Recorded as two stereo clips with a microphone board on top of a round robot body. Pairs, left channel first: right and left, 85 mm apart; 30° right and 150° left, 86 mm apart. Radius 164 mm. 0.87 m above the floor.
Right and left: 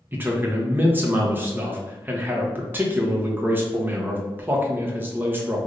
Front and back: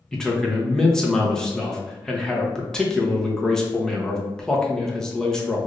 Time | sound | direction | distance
0.1 | a man speaking | 45° left | 0.9 m